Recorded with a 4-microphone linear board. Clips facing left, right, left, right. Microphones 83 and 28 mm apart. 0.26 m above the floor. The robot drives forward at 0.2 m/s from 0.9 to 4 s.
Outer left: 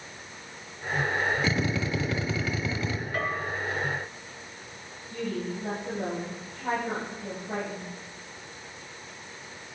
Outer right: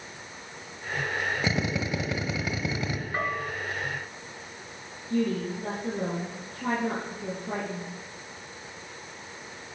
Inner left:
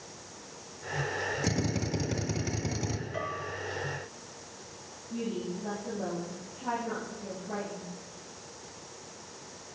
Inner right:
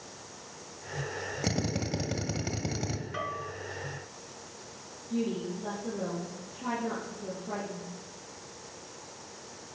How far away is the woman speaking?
About 6 m.